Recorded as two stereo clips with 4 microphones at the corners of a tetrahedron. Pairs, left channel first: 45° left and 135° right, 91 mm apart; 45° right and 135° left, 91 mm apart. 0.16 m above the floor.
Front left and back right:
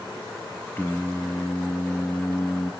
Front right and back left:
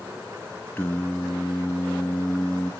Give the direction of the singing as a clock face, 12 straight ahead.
12 o'clock.